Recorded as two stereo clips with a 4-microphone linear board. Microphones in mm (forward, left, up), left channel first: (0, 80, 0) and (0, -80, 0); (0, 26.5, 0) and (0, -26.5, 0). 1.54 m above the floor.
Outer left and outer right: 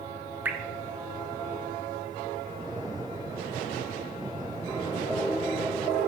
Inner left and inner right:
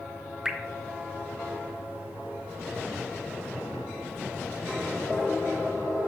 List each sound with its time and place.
0.5 s dripping: 10° right (ahead or behind), 1.1 m